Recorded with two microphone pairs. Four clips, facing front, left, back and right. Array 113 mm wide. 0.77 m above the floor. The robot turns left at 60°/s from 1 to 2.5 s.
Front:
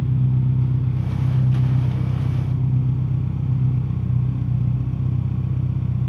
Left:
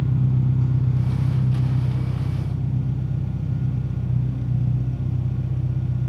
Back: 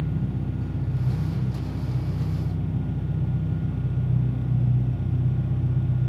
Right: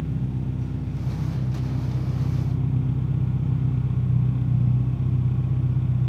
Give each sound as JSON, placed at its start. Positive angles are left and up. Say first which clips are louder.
{"t": 0.0, "sound": "an engine running", "louder": "left 5 dB, front 6 dB", "azimuth_deg": 60, "distance_m": 5.0}